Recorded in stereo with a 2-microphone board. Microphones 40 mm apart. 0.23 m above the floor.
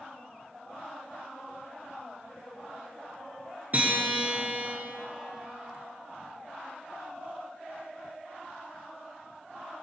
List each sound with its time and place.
3.7 s a guitar: 40° right (ahead or behind), 3 m